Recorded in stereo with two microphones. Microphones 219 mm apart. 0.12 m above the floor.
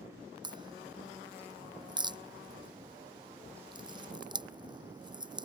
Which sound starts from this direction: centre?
A crack, at 0.4 s.